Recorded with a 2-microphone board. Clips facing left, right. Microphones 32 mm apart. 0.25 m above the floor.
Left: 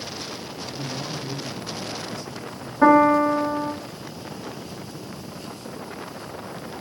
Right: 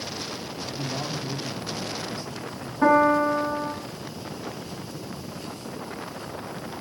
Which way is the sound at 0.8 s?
40° right (ahead or behind).